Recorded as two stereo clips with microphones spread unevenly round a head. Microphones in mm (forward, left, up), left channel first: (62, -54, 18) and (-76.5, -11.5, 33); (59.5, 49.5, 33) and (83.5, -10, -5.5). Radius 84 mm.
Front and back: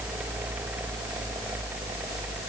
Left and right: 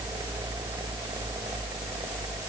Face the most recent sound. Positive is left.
No sound to turn to.